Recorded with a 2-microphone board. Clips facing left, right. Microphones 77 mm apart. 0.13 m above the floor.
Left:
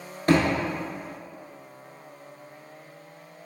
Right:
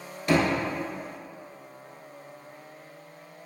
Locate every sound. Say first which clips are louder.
0.3 s a thud: left 2 dB; 45° left (ahead or behind), 1.0 m